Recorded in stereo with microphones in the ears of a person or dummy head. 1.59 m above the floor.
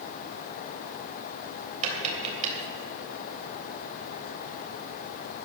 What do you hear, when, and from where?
1.8 s tapping: 40° right (ahead or behind), 3 m